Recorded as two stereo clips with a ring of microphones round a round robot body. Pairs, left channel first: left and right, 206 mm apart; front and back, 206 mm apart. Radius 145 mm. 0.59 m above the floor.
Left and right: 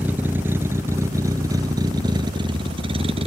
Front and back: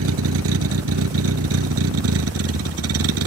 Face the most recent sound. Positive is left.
turn(degrees=-160)